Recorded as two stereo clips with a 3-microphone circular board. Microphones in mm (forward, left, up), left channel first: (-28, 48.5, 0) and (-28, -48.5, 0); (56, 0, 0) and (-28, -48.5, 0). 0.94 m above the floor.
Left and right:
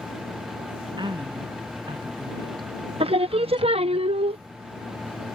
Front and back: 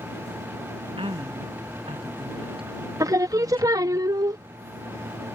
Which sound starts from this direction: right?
Singing, at 3.0 s.